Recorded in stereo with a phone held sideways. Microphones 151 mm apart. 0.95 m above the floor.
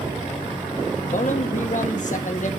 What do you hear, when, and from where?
1.1 s a man speaking: 65° left (ahead or behind), 1.3 m